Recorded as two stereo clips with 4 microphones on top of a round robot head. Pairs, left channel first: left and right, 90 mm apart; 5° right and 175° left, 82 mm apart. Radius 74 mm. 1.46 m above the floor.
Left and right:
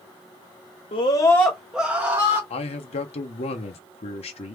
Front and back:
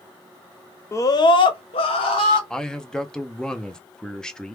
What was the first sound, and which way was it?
A scream, 55° left.